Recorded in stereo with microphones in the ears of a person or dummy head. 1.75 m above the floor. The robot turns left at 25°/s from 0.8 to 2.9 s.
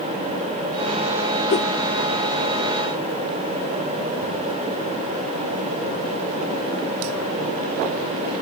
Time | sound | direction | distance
1.5 | a whoosh | 35° left (ahead or behind) | ?